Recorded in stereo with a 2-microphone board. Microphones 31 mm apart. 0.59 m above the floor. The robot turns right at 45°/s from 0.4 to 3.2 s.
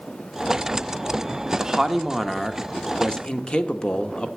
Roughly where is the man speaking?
Ahead right.